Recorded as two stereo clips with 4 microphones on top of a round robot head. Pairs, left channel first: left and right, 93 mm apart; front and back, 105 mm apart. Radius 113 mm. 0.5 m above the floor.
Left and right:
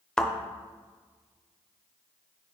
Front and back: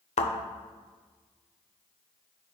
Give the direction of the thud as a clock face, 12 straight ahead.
12 o'clock.